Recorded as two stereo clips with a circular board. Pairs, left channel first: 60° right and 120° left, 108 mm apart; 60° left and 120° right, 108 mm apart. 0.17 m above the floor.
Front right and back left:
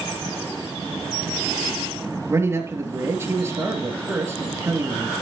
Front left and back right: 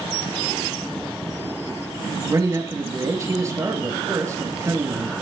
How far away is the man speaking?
About 3 m.